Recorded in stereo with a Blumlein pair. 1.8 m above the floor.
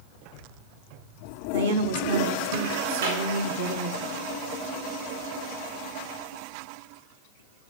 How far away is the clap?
About 4.5 m.